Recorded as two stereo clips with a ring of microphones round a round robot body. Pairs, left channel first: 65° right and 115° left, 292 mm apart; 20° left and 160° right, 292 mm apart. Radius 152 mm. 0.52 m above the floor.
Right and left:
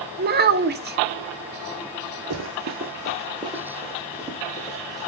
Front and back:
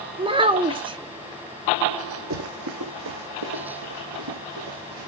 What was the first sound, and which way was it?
A child speaking, 140° left.